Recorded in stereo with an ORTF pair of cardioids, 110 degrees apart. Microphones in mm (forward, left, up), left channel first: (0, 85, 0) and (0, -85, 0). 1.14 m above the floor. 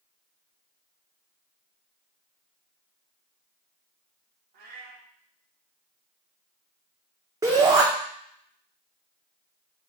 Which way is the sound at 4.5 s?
65° right.